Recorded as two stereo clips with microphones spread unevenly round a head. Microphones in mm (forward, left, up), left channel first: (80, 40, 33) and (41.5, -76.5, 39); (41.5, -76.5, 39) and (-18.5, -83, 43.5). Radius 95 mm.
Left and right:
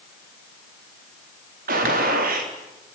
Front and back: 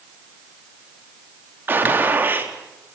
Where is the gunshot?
120° right, 4 m.